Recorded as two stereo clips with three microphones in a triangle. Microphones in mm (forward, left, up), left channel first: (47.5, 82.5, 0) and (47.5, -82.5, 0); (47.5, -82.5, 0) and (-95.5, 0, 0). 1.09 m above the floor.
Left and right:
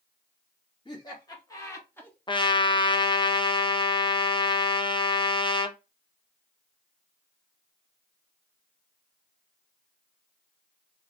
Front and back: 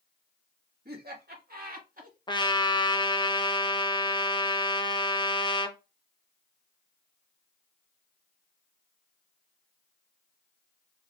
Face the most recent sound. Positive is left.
turn(degrees=30)